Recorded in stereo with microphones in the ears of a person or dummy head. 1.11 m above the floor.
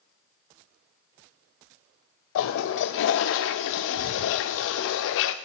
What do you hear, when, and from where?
2.4 s a toilet flushing: 65° left (ahead or behind), 0.6 m